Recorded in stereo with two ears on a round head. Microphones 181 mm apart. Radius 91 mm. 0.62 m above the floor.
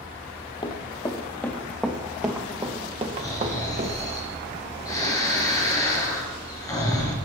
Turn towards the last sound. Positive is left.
turn(degrees=15)  # may be behind; listen again after turning